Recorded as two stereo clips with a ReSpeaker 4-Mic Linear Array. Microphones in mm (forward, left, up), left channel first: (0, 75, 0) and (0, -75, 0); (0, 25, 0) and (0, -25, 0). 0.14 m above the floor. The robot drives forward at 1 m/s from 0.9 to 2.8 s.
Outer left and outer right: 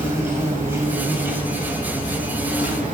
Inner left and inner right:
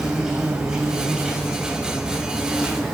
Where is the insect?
20° right (ahead or behind), 3 m; by 2.9 s 10° right (ahead or behind), 4.5 m.